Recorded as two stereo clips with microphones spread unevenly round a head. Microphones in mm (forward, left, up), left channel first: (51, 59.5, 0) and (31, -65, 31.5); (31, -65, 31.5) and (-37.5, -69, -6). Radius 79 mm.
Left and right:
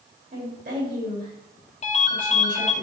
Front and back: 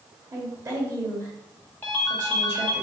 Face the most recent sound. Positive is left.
turn(degrees=45)